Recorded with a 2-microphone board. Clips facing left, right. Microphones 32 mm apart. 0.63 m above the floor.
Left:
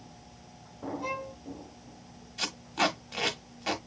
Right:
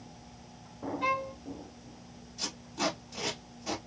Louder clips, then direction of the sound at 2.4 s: Left 5 dB; 70° left (ahead or behind).